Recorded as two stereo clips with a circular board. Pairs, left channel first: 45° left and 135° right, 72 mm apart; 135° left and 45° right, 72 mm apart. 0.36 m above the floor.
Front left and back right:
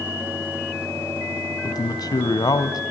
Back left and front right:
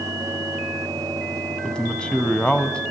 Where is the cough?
I don't hear a cough.